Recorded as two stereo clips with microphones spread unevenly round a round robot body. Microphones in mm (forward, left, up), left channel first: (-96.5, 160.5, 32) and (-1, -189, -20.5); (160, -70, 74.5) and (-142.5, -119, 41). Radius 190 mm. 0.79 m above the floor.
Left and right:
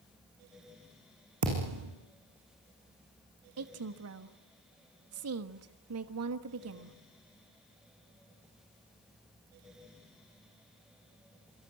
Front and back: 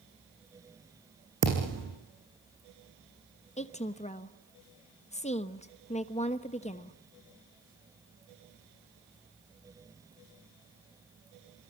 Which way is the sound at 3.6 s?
60° right.